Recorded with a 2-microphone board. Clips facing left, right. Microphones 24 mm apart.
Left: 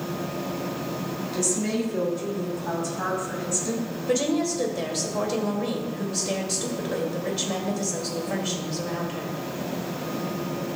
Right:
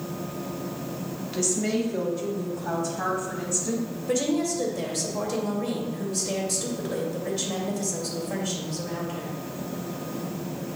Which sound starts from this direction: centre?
A woman speaking, at 4.1 s.